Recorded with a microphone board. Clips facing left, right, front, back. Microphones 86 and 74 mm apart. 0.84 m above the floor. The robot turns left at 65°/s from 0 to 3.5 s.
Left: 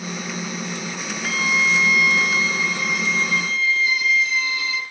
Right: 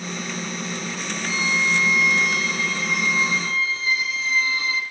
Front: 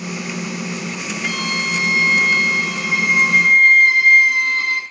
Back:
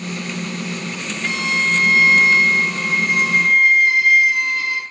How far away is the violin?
About 7 m.